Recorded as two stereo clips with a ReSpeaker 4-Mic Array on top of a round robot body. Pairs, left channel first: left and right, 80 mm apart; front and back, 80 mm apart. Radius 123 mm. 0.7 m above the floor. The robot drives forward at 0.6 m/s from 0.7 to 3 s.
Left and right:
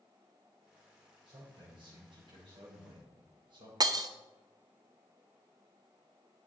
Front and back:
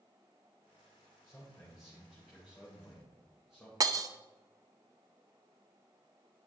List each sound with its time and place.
1.2 s a man speaking: 80° right, 4 m; by 3.7 s 95° right, 4 m
3.8 s breaking glass: 135° right, 0.5 m